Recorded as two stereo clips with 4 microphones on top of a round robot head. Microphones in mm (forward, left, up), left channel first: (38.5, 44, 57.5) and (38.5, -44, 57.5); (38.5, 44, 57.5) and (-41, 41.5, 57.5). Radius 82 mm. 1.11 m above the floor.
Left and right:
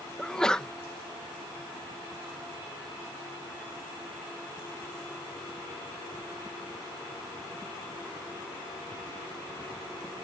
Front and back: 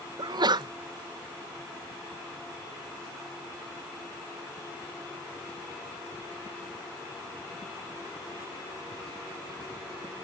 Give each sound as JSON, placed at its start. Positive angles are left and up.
{"t": 0.2, "sound": "a sneeze", "azimuth_deg": 170}